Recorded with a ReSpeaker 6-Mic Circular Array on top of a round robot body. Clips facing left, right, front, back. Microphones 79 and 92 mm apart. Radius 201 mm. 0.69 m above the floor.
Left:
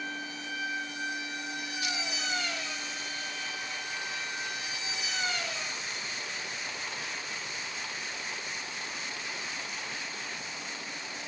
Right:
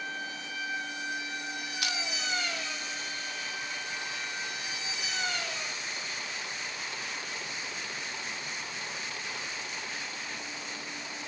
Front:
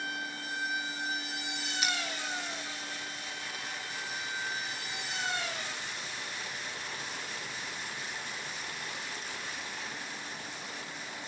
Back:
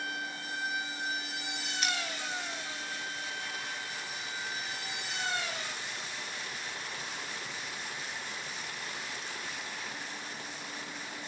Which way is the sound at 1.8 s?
80° right.